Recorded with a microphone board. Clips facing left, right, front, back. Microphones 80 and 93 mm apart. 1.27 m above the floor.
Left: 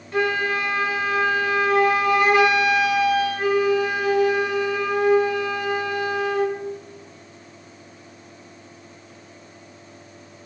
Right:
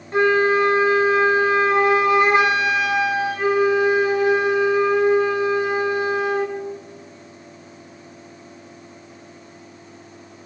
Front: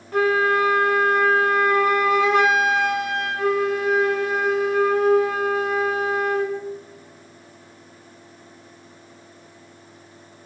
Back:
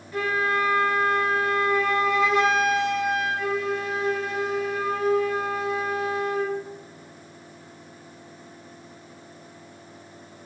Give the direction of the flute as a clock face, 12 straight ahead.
1 o'clock.